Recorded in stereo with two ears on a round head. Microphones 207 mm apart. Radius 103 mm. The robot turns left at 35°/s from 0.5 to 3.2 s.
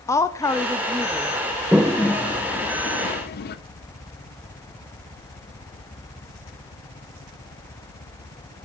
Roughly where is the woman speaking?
Centre.